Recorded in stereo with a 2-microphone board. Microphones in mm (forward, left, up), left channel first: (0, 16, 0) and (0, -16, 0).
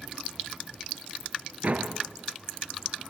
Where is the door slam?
50° right (ahead or behind), 2.5 m.